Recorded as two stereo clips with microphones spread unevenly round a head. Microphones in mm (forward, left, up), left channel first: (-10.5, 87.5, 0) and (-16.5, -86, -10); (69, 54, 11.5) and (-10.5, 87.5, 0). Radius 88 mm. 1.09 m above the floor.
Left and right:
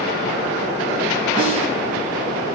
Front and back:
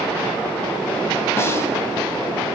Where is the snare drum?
35° left, 8 m.